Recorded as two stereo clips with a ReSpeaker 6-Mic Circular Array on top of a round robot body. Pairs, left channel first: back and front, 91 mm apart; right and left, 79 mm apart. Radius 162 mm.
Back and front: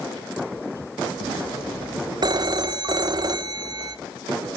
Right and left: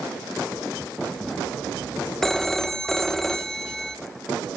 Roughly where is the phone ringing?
Ahead.